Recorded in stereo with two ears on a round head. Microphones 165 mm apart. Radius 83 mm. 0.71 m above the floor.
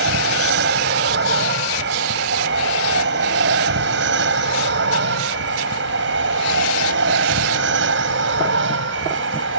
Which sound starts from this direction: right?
An aircraft, at 0.0 s.